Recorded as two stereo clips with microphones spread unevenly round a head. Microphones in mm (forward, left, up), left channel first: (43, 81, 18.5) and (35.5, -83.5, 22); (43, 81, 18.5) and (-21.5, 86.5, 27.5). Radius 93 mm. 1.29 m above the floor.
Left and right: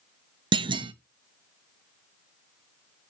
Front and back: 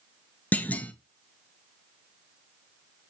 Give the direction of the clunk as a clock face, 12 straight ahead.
1 o'clock.